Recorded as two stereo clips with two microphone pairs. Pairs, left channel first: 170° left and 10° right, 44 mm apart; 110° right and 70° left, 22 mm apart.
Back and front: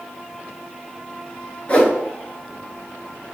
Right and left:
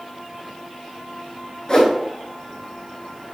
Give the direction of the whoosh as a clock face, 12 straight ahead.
5 o'clock.